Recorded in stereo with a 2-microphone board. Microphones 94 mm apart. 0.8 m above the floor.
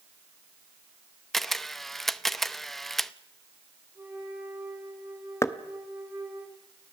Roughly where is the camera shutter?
Centre.